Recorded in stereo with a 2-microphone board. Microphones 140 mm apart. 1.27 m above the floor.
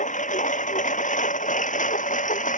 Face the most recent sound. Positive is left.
turn(degrees=65)  # may be behind; listen again after turning